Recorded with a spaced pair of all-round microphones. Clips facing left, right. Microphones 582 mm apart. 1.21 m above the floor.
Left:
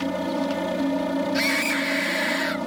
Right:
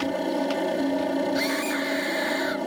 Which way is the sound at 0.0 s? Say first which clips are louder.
Even; 30° left (ahead or behind).